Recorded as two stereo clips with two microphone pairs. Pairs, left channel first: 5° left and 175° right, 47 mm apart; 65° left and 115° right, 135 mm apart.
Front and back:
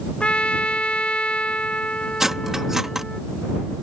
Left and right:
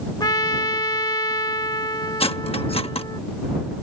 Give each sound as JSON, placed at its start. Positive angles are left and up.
{"t": 0.2, "sound": "a trumpet", "azimuth_deg": 45}
{"t": 2.2, "sound": "cutlery clinking", "azimuth_deg": 105}